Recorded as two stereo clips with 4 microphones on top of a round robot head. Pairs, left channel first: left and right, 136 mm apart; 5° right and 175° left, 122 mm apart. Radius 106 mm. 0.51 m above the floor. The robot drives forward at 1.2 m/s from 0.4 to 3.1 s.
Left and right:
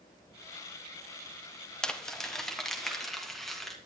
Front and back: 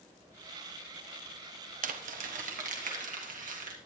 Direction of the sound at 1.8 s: 175° left.